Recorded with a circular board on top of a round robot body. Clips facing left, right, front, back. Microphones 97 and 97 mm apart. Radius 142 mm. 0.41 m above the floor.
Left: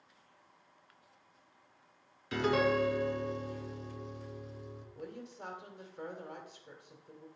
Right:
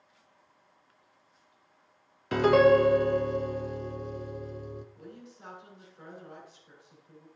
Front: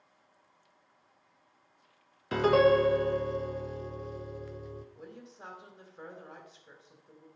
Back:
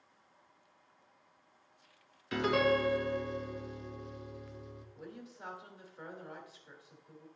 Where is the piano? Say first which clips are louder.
Right 10 dB, front 7 dB; 50° right, 0.6 m.